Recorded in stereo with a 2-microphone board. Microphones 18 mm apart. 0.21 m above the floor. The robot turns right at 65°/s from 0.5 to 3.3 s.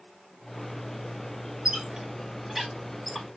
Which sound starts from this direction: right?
A squeak, at 1.6 s.